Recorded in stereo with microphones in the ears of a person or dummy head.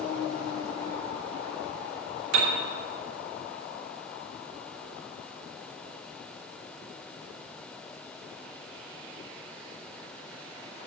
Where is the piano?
80° right, 3 m.